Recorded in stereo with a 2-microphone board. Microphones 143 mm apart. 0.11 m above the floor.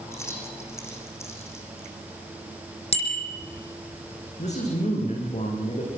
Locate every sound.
0.1 s keys jangling: 20° left (ahead or behind), 5 m
2.9 s a bicycle bell: 45° left (ahead or behind), 3.5 m
4.4 s a man speaking: 55° left (ahead or behind), 9 m